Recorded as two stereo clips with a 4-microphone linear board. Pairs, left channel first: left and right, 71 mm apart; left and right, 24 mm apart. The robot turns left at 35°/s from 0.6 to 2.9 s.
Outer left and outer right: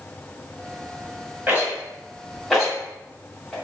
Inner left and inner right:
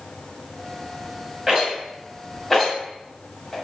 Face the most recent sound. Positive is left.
turn(degrees=5)  # may be behind; listen again after turning